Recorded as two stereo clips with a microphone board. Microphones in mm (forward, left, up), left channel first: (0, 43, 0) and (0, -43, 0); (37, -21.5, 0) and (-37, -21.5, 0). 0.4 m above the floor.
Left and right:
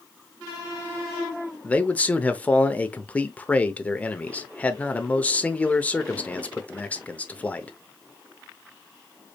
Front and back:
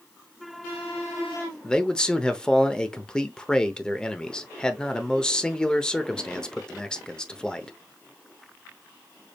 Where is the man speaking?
60° left, 0.8 m.